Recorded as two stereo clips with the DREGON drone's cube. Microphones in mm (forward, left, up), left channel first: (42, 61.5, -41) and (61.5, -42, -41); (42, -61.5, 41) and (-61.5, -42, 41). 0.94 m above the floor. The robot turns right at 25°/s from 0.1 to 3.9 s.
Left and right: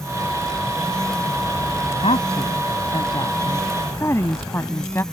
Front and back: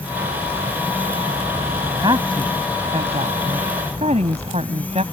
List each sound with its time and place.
2.0 s a woman speaking: 120° left; by 5.0 s 165° left